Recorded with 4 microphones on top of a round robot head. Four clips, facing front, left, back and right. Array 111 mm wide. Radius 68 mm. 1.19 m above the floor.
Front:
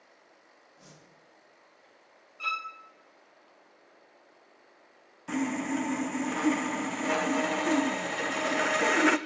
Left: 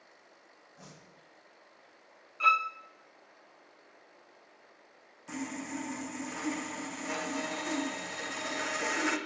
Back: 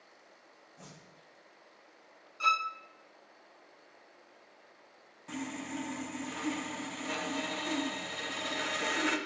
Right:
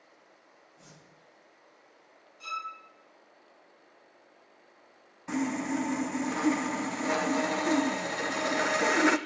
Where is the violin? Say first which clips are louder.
Left 11 dB, back 5 dB; 110° left, 0.6 m.